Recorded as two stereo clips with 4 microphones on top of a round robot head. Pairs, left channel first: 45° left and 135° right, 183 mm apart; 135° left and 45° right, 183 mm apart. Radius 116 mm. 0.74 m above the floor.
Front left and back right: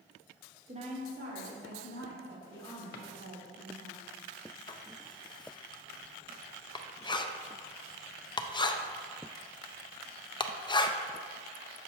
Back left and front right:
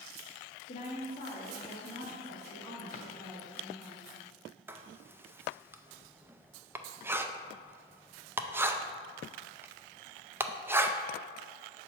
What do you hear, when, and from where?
0.7 s a woman speaking: 170° left, 1.3 m; by 3.9 s 155° right, 5 m
2.9 s a drawer: 85° left, 0.6 m
4.7 s writing: 20° left, 0.5 m